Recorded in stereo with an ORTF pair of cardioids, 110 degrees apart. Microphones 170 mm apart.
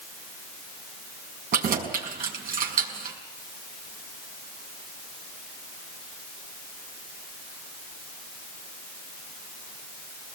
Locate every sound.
1.5 s keys jangling: 55° right, 5.5 m